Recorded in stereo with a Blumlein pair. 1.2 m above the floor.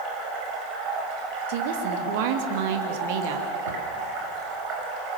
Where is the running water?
40° right, 7 m.